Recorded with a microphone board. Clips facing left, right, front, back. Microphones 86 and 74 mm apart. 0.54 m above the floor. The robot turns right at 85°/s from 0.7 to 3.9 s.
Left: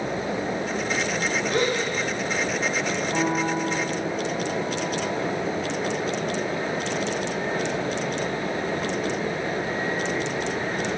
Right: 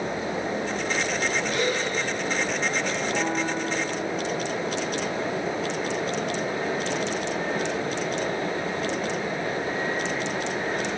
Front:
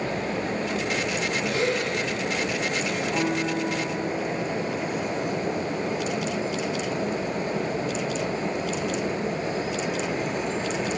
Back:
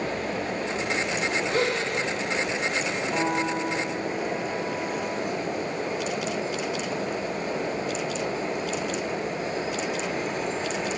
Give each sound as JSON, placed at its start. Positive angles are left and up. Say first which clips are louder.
{"t": 1.5, "sound": "a gasp", "louder": "left 4 dB, even", "azimuth_deg": 130, "distance_m": 1.9}
{"t": 3.1, "sound": "a piano", "louder": "left 4 dB, back 1 dB", "azimuth_deg": 150, "distance_m": 3.0}